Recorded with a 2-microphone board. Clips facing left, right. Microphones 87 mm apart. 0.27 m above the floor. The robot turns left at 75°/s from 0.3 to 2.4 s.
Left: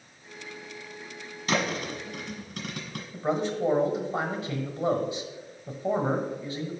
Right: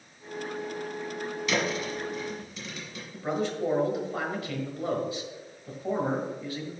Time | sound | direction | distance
1.5 | a thud | 45° left (ahead or behind) | 1.5 m
3.1 | a man speaking | 25° left (ahead or behind) | 1.2 m